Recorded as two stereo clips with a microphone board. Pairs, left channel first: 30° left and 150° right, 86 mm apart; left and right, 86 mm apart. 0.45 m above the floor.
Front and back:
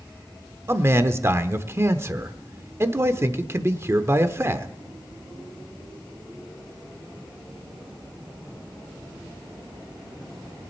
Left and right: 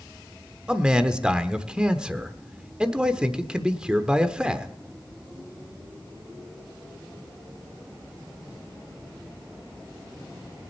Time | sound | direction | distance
0.7 | a man speaking | 160° right | 0.9 m